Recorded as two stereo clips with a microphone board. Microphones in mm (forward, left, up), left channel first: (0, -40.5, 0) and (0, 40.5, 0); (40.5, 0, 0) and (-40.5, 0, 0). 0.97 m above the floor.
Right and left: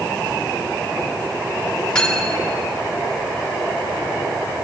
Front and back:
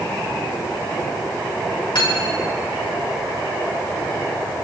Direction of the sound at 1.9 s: 10° right.